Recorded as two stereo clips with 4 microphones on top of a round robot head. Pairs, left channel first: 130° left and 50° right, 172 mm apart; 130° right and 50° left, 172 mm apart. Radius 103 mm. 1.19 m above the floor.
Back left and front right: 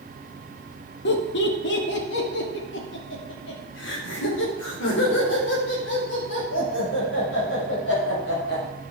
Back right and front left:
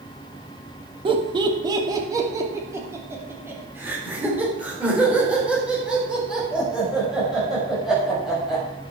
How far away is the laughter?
About 1.9 m.